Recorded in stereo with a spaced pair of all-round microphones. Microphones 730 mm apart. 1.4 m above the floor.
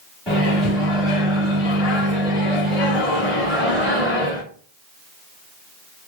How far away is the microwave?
About 1.3 m.